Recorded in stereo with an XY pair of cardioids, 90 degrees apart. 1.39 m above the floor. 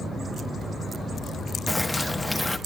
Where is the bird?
5° left, 0.9 m.